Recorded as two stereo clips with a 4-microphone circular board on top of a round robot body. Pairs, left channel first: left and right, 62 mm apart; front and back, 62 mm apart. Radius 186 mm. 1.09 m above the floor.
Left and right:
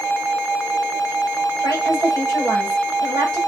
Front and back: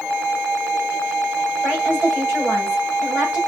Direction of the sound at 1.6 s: 115° right.